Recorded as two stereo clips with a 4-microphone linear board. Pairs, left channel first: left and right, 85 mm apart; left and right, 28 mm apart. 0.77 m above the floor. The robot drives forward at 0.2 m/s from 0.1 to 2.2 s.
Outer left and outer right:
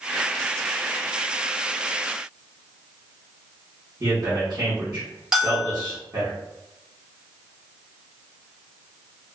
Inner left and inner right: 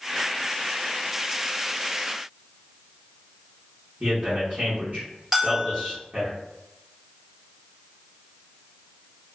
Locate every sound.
4.0 s a man speaking: 45° right (ahead or behind), 1.2 m
5.3 s a bell: 10° right (ahead or behind), 1.3 m